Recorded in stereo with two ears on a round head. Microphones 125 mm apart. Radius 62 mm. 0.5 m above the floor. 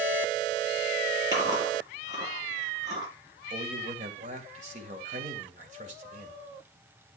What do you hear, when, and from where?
1.3 s chewing: 25° right (ahead or behind), 8 m
3.5 s a man speaking: 55° right (ahead or behind), 2 m